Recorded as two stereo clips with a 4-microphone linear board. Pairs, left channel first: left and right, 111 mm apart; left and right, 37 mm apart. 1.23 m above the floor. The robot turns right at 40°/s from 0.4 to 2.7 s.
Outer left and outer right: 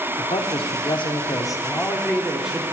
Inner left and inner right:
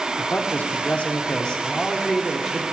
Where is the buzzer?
No buzzer in this recording.